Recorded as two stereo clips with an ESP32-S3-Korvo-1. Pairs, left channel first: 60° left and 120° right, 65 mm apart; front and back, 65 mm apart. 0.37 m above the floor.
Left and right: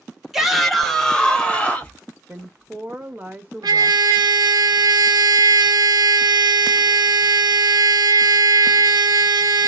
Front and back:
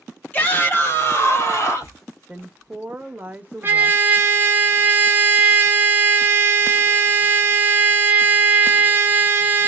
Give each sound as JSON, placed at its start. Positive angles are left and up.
{"t": 0.3, "sound": "a shout", "azimuth_deg": -40, "distance_m": 1.2}
{"t": 2.3, "sound": "a woman speaking", "azimuth_deg": -145, "distance_m": 0.9}
{"t": 3.6, "sound": "a trumpet", "azimuth_deg": -120, "distance_m": 0.8}